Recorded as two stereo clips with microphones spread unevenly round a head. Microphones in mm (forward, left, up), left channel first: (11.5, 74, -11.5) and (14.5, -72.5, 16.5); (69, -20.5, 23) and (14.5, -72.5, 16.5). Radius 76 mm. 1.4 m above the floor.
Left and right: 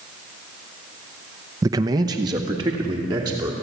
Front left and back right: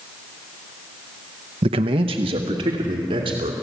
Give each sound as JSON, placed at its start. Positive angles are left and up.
{"t": 1.6, "sound": "a man speaking", "azimuth_deg": -155, "distance_m": 0.6}